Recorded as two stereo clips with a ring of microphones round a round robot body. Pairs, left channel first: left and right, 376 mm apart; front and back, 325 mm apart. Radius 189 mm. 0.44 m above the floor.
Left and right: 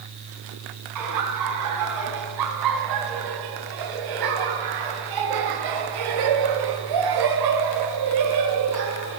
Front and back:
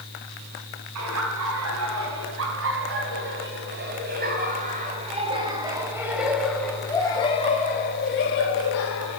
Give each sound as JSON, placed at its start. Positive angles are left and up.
{"t": 0.9, "sound": "laughter", "azimuth_deg": -130, "distance_m": 5.5}